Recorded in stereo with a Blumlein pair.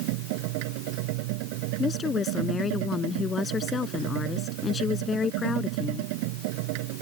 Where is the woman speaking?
20° left.